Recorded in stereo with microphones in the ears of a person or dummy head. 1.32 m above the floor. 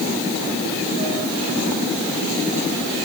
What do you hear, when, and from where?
Only background noise.